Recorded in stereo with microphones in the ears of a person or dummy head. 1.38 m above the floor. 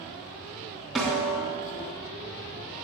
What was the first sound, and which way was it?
A snare drum, centre (ahead or behind).